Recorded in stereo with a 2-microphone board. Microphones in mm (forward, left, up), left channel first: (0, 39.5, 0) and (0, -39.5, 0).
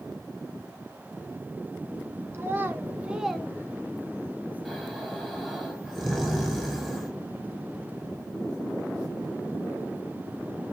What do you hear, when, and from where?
2.3 s a child speaking: 35° right (ahead or behind), 1.9 m; by 4.4 s 85° left, 1.1 m
4.7 s snoring: centre (ahead or behind), 4.5 m